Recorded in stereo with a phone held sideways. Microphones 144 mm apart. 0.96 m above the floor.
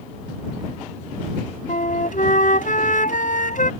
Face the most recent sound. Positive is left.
turn(degrees=65)  # may be behind; listen again after turning